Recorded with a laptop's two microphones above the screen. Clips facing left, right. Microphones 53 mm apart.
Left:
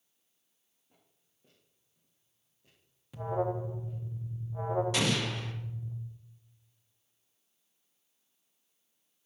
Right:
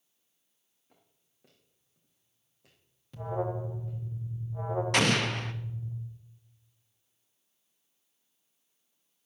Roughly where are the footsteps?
Right.